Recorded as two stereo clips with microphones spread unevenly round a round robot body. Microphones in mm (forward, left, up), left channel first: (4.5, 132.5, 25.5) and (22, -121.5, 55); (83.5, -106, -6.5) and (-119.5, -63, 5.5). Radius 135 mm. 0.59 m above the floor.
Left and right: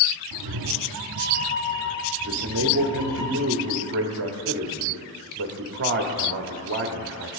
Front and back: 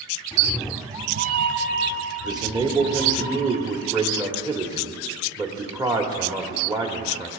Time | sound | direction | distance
0.3 | a cat meowing | 80° right | 0.8 m
2.2 | a man speaking | 120° right | 1.1 m